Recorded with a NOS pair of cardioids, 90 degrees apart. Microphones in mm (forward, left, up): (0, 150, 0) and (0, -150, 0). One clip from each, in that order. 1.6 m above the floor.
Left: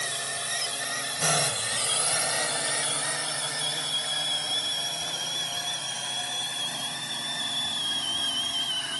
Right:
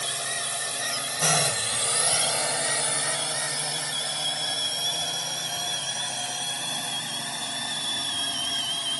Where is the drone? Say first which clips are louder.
Right 2 dB; 20° right; by 9.0 s 35° right.